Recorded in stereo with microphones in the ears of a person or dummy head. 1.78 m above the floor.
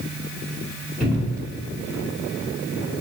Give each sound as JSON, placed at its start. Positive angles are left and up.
{"t": 1.0, "sound": "a cupboard door", "side_deg": -10, "distance_m": 1.4}